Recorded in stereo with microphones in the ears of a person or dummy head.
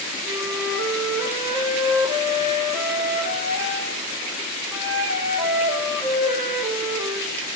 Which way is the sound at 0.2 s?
15° right (ahead or behind).